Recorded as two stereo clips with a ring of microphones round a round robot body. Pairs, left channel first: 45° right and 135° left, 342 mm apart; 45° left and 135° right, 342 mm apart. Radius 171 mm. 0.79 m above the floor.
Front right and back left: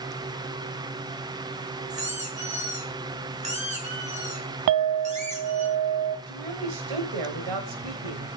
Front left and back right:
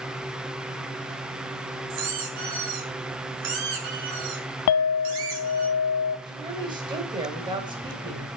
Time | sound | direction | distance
1.9 | a squeak | 155° right | 4.5 m
4.7 | a clink | 90° left | 0.8 m
6.3 | a woman speaking | 150° left | 4 m